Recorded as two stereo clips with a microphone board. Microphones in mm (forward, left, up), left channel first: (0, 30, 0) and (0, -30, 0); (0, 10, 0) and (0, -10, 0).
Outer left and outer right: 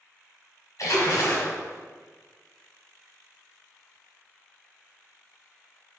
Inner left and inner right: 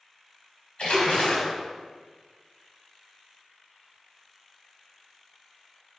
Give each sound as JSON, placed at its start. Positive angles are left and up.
{"t": 0.8, "sound": "a splash", "side_deg": 70, "distance_m": 1.8}